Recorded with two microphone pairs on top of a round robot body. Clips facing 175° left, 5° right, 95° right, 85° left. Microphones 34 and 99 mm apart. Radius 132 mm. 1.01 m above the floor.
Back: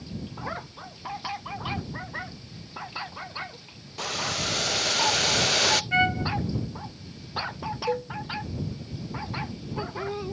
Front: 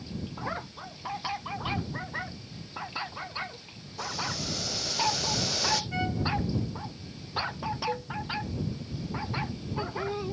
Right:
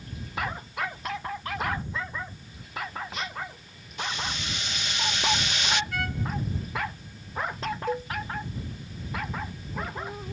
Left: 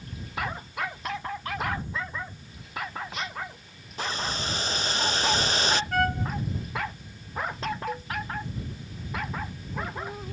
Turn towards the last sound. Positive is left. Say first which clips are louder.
# back 5 dB, right 4 dB
turn(degrees=-160)